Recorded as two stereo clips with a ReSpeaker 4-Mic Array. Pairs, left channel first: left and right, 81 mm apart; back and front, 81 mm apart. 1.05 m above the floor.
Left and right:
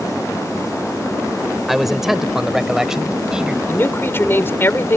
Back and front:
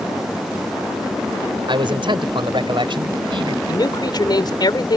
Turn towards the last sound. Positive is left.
turn(degrees=150)